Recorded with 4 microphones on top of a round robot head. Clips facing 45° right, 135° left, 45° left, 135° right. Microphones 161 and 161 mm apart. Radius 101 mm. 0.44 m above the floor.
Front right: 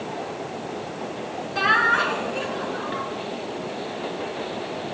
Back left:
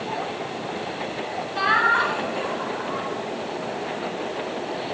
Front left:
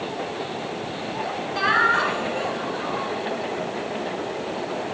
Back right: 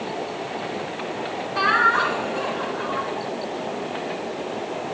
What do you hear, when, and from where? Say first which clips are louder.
1.6 s laughter: even, back right 2 dB; 20° right, 9.5 m